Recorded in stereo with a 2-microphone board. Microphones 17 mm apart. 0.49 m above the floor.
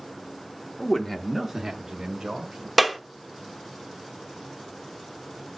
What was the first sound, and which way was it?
A man speaking, 35° left (ahead or behind).